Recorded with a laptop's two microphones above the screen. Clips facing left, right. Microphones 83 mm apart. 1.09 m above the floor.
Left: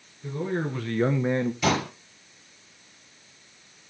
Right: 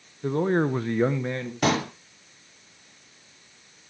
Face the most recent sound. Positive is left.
turn(degrees=-50)  # may be behind; listen again after turning